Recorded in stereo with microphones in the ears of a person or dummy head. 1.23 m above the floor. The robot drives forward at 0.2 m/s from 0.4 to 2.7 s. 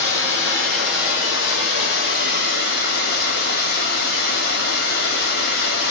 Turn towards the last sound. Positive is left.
turn(degrees=60)  # may be behind; listen again after turning